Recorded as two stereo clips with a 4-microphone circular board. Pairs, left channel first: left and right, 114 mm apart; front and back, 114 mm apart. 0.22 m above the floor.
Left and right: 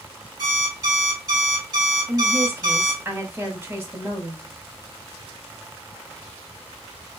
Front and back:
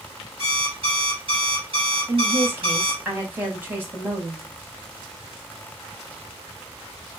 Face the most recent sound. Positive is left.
turn(degrees=-135)